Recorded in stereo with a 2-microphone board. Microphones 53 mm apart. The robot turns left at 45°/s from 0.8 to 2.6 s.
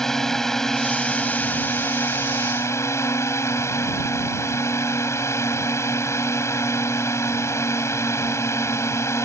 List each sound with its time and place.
0.0 s a drone: 170° left; by 9.2 s 90° left